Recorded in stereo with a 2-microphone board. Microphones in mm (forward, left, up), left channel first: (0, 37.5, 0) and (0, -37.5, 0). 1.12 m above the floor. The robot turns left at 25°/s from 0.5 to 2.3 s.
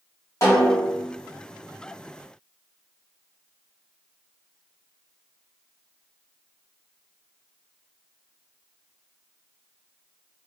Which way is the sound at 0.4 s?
45° left (ahead or behind).